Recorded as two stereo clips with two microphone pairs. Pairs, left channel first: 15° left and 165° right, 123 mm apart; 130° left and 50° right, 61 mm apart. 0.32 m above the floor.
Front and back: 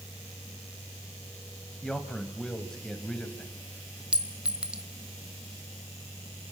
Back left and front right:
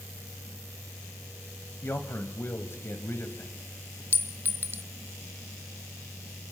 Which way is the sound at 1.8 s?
100° left.